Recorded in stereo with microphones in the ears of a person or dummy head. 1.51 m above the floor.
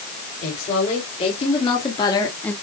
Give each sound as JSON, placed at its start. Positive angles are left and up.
{"t": 0.4, "sound": "a woman speaking", "side_deg": 35, "distance_m": 4.5}